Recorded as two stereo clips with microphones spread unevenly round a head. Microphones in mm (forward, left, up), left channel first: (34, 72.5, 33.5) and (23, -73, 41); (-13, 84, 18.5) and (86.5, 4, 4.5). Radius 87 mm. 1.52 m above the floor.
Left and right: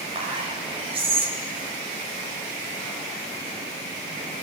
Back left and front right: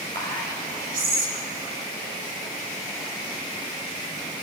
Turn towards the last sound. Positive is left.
turn(degrees=-40)